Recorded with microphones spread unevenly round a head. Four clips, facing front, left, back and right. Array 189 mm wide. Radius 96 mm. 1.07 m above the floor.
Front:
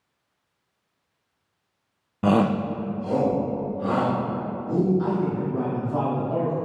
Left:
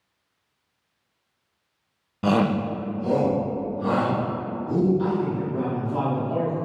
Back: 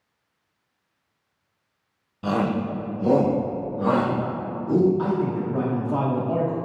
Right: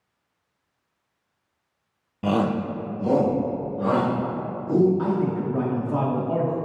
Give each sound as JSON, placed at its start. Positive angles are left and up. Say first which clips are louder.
{"t": 2.2, "sound": "a shout", "louder": "left 1 dB, front 3 dB", "azimuth_deg": 15, "distance_m": 0.6}
{"t": 5.0, "sound": "a man speaking", "louder": "right 1 dB, back 1 dB", "azimuth_deg": -155, "distance_m": 1.7}